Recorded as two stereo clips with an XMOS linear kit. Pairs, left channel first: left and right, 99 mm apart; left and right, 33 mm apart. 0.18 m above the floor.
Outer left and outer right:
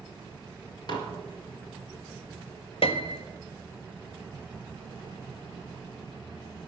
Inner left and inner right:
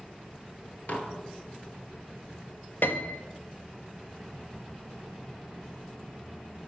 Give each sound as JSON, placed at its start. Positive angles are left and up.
{"t": 0.9, "sound": "dishes clattering", "side_deg": 45, "distance_m": 2.0}
{"t": 2.8, "sound": "a piano", "side_deg": 70, "distance_m": 1.0}